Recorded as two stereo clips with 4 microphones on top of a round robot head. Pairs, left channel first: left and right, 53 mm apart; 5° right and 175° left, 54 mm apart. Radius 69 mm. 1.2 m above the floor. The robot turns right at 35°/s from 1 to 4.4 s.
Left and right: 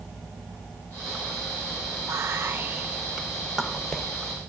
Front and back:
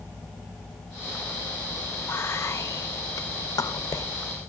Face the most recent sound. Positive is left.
turn(degrees=25)